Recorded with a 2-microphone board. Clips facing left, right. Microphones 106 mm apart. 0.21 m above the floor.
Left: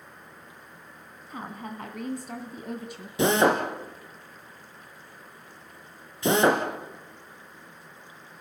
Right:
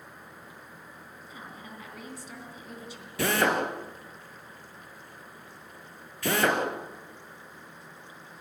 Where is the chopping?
I don't hear chopping.